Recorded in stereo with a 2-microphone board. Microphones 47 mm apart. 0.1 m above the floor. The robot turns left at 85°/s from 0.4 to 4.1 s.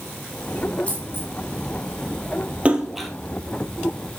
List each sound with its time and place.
0.9 s a dropped coin: 20° left (ahead or behind), 7 m; by 1.3 s 60° left (ahead or behind), 7 m
2.6 s a splash: 30° right (ahead or behind), 2 m; by 3.1 s 5° left (ahead or behind), 2 m